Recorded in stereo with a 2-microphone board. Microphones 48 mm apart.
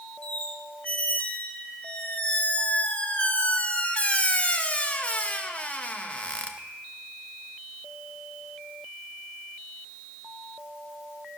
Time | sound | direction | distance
0.2 | a squeak | 30° left (ahead or behind) | 0.8 m